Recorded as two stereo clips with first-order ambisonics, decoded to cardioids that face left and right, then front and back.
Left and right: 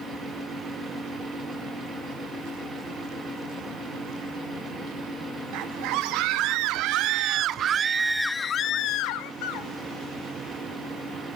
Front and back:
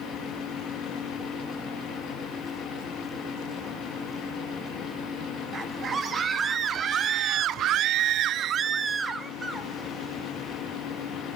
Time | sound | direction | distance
5.5 | a scream | 115° right | 2 m